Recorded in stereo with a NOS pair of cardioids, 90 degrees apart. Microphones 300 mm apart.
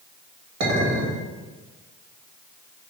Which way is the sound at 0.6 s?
65° right.